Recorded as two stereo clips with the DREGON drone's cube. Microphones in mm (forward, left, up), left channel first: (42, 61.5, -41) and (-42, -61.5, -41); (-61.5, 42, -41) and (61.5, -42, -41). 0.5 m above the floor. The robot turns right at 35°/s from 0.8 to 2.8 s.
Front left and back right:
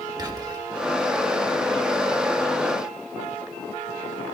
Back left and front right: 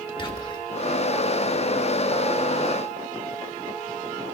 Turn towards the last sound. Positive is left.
turn(degrees=-105)